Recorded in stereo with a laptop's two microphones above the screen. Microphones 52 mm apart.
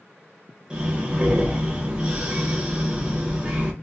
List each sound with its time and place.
0.7 s breathing: 15° right (ahead or behind), 0.6 m